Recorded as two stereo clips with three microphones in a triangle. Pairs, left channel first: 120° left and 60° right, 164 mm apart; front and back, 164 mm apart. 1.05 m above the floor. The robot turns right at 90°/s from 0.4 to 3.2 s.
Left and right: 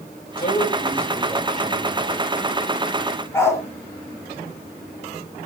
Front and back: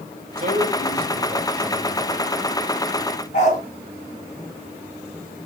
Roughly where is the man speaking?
Behind left.